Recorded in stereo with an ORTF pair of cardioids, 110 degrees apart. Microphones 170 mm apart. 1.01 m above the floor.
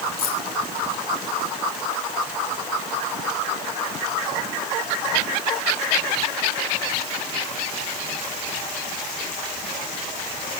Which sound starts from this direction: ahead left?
Keys jangling, at 0.2 s.